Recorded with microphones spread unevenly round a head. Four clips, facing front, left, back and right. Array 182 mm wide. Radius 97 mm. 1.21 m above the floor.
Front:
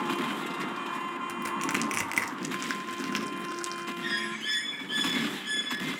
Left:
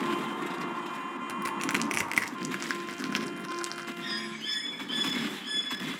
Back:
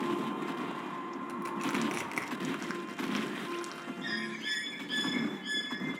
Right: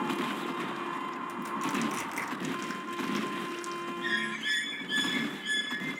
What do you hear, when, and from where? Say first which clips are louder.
1.3 s crushing: left 2 dB, front 1 dB; 60° left, 1.6 m
4.0 s a bird: right 4 dB, front 3 dB; 70° right, 6.5 m